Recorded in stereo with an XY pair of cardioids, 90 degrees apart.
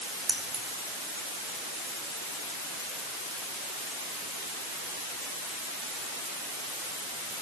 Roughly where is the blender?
No blender in this recording.